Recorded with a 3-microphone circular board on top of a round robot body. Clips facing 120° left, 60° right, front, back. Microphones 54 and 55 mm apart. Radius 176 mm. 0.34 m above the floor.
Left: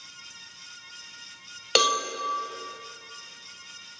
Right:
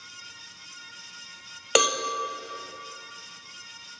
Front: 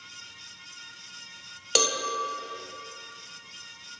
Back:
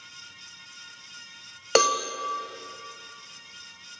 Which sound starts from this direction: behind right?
A cowbell, at 1.8 s.